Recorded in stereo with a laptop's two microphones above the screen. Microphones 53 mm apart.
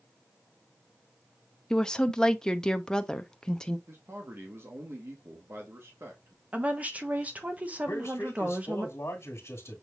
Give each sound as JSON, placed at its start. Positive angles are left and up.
{"t": 1.7, "sound": "a woman speaking", "side_deg": 15, "distance_m": 0.7}
{"t": 3.9, "sound": "a man speaking", "side_deg": -50, "distance_m": 1.3}
{"t": 6.5, "sound": "a woman speaking", "side_deg": -30, "distance_m": 0.8}
{"t": 7.9, "sound": "a man speaking", "side_deg": 60, "distance_m": 2.0}